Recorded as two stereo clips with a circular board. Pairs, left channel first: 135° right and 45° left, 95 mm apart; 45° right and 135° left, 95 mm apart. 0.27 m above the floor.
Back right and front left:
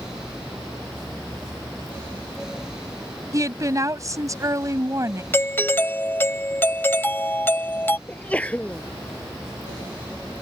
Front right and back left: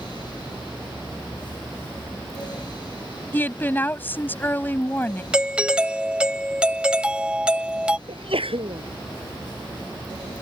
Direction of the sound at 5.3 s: 160° right.